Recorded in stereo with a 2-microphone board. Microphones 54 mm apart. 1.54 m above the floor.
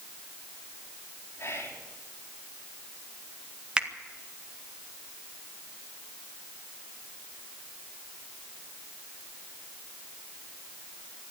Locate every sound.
1.4 s whispering: 50° left (ahead or behind), 4 m
3.8 s a finger snap: 15° right (ahead or behind), 1.8 m